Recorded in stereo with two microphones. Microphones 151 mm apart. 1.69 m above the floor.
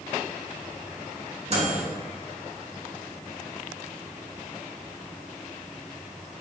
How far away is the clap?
No clap in this recording.